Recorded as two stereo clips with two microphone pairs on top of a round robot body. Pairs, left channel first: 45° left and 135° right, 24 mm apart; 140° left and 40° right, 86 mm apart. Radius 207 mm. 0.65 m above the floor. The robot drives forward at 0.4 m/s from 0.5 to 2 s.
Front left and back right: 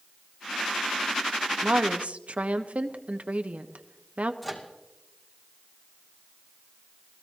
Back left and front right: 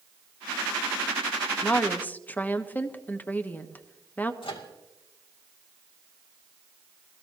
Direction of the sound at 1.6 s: 140° right.